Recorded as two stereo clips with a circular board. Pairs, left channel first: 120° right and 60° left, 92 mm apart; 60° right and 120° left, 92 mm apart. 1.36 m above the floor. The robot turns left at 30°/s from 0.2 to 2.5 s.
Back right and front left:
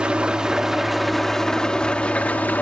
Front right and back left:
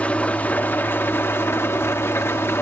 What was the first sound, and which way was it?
An engine running, 5° right.